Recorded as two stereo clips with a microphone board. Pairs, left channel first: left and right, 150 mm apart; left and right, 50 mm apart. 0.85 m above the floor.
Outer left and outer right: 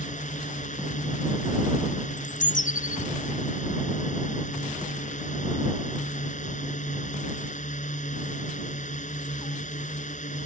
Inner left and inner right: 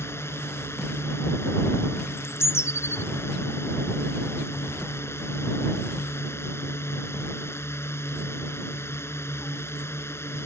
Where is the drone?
55° left (ahead or behind).